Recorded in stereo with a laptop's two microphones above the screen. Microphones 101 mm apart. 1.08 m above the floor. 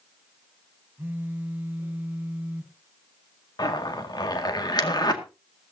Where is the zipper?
45° left (ahead or behind), 1.9 m.